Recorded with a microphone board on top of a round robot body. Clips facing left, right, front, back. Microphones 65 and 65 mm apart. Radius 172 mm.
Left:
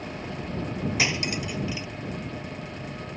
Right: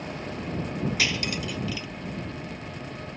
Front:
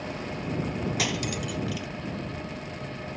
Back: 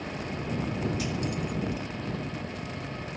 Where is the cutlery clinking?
20° left.